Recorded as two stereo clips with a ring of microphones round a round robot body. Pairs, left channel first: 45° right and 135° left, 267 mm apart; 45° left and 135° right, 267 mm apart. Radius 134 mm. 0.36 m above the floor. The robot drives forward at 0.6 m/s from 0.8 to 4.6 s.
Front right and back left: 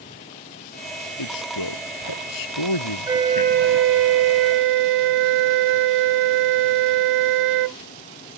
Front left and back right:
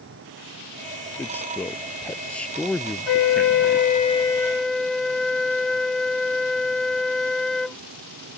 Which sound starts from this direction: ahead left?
A flute, at 3.1 s.